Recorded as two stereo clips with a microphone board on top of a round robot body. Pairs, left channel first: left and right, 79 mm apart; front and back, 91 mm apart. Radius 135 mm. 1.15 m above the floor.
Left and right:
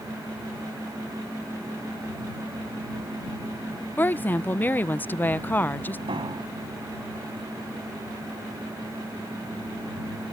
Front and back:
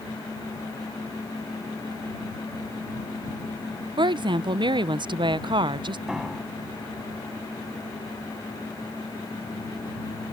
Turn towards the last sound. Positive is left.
turn(degrees=-95)